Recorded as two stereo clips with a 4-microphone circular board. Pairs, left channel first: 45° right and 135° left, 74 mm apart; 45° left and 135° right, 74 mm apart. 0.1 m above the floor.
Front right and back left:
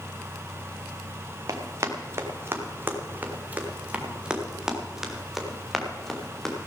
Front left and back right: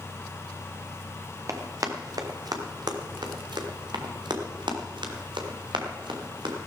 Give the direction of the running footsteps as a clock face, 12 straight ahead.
6 o'clock.